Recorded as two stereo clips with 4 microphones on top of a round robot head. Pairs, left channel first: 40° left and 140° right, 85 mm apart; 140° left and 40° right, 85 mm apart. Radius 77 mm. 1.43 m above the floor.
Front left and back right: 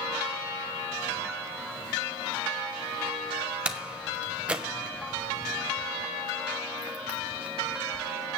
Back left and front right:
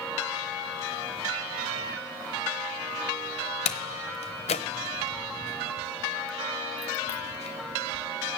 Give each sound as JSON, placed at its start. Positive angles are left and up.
{"t": 3.6, "sound": "a door slam", "azimuth_deg": 145, "distance_m": 0.9}